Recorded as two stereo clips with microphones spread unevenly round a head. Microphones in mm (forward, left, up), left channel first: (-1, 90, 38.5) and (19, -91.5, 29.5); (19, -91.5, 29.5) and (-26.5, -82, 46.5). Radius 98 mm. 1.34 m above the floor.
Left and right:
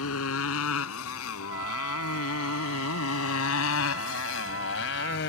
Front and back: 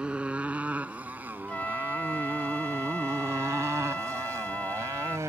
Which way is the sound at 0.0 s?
90° left.